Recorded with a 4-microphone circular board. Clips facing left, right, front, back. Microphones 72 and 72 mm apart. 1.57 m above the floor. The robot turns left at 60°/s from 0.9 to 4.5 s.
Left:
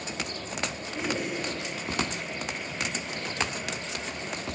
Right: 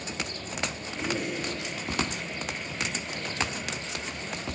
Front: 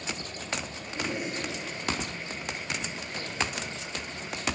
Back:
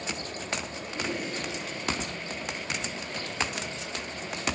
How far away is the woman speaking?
About 3 m.